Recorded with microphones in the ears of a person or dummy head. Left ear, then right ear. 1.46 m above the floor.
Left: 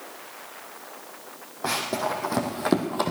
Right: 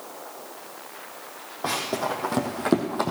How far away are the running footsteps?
About 2.5 m.